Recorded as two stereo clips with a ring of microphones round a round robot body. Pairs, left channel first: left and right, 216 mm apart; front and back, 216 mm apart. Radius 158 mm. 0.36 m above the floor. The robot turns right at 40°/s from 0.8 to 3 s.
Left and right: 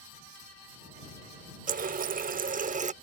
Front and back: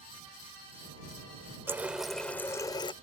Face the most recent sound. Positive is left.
turn(degrees=-55)